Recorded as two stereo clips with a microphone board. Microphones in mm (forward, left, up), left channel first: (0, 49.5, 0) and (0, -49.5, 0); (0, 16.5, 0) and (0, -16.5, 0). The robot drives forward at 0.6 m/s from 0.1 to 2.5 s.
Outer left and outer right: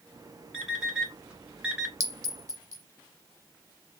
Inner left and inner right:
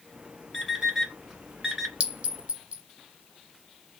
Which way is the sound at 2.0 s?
40° right (ahead or behind).